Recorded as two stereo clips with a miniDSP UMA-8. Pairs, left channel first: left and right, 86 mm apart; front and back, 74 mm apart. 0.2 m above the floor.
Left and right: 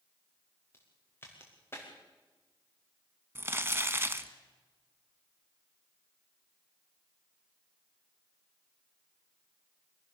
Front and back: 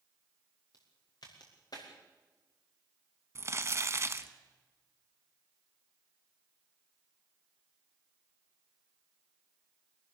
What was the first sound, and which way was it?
A crack, 25° left.